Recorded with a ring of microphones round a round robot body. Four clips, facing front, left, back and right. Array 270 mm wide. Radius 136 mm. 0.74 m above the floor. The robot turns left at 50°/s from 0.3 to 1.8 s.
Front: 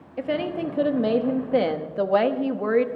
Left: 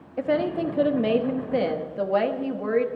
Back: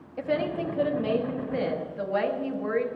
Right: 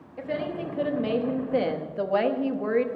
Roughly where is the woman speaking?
Left.